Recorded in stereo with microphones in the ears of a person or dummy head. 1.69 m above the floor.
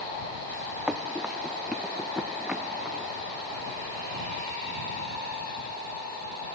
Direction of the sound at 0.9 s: 5° right (ahead or behind).